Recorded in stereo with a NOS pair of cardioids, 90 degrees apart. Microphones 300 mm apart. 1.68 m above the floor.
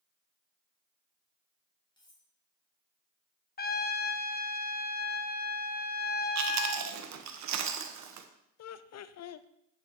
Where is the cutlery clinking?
15° left, 5 m.